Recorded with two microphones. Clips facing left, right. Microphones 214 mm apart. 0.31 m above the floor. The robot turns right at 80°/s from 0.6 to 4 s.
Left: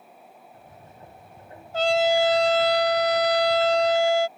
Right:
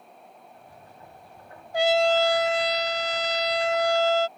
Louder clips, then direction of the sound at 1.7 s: Even; 20° right.